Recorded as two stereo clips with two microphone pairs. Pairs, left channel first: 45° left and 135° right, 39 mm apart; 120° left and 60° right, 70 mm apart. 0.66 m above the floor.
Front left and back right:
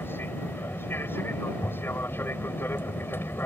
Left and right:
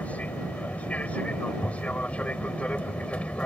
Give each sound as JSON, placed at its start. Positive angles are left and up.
{"t": 0.0, "sound": "an aircraft", "azimuth_deg": 50}